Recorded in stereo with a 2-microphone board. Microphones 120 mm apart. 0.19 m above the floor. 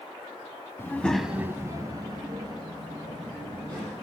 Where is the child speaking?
20° left (ahead or behind), 0.8 m; by 4.0 s 35° right (ahead or behind), 4 m.